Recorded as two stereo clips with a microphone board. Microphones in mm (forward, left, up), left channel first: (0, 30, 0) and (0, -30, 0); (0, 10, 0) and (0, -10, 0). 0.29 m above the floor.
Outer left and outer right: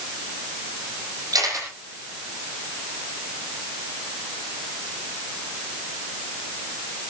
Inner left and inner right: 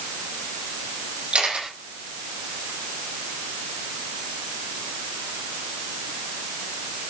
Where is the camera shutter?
85° right, 7.5 m.